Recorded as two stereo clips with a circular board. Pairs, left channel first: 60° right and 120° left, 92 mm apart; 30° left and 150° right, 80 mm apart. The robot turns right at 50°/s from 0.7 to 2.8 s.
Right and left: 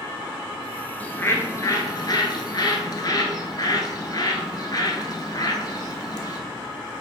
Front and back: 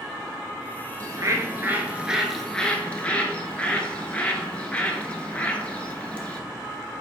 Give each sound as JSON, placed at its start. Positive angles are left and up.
{"t": 1.0, "sound": "a bird", "azimuth_deg": -130, "distance_m": 0.8}